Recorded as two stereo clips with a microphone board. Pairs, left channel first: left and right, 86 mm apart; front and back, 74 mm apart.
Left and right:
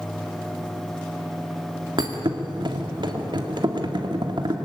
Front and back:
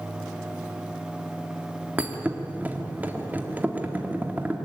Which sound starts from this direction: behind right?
A thud, at 2.0 s.